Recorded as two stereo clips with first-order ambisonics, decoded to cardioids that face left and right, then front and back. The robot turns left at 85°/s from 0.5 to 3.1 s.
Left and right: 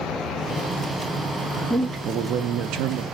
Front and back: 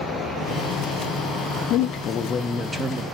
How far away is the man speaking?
About 0.5 m.